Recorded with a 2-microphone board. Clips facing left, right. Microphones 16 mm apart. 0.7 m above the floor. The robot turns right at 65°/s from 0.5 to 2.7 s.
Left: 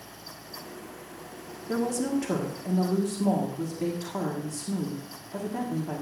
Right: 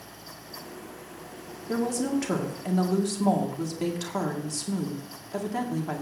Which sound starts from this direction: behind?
A woman speaking, at 1.7 s.